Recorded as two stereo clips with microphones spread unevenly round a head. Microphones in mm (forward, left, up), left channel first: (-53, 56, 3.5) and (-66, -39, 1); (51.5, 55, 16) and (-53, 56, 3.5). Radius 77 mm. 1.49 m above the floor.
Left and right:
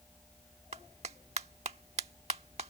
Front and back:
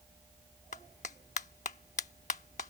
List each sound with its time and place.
0.7 s a clap: 45° right